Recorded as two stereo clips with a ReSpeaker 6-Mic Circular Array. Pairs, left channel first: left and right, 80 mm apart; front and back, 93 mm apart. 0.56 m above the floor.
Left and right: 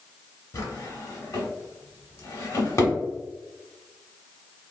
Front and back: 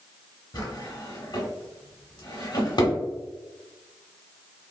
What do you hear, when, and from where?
0.5 s a drawer: 35° left, 1.3 m